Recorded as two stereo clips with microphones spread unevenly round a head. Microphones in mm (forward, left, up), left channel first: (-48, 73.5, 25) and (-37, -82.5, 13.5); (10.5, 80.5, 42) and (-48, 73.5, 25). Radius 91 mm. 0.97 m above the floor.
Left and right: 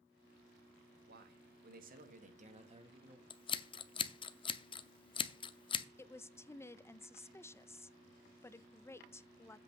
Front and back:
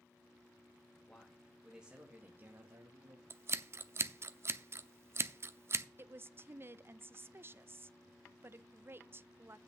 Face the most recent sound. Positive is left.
turn(degrees=170)